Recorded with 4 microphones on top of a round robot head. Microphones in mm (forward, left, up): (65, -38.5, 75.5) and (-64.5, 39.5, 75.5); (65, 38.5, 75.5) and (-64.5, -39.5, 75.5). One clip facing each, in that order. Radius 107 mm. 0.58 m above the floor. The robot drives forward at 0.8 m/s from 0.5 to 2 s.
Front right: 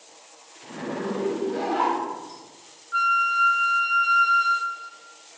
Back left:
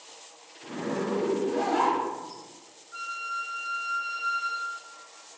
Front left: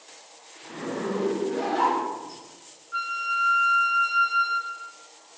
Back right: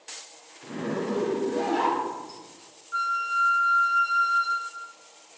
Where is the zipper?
120° right, 3 m; by 2.4 s 135° right, 3.5 m.